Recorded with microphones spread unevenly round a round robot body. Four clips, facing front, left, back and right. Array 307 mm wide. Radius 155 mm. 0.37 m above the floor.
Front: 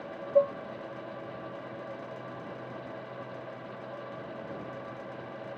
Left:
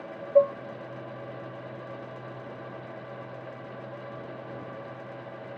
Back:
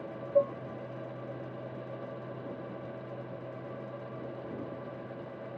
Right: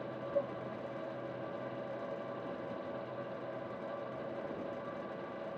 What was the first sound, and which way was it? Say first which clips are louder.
Dishes clattering: left 16 dB, front 2 dB; 75° left.